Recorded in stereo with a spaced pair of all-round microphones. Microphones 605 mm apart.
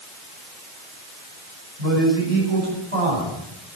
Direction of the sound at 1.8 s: 80° right.